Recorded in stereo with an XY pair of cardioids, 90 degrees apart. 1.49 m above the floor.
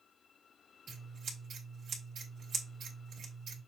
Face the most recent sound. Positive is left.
turn(degrees=-70)